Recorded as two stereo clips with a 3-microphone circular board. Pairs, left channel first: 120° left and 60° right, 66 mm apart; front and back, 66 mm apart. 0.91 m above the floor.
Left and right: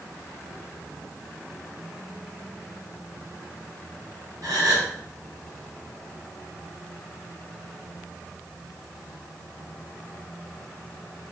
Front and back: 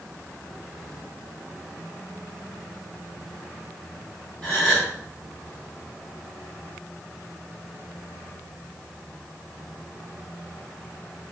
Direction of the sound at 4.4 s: 75° right.